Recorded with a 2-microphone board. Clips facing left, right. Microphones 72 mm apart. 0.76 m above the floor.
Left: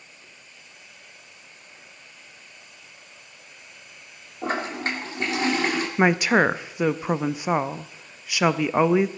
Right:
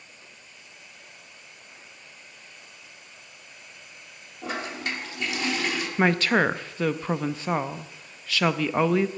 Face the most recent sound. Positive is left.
turn(degrees=15)  # may be behind; listen again after turning